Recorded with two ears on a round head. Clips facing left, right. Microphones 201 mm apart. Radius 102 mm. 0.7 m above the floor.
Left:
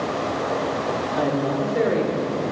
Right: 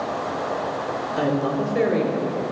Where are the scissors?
I don't hear scissors.